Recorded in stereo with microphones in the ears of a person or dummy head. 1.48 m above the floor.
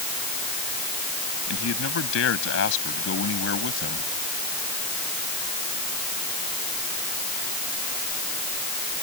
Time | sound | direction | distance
1.5 | a man speaking | 75° left (ahead or behind) | ?